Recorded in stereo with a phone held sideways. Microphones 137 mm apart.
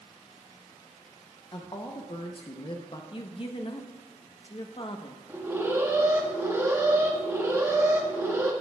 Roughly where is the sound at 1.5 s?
Left.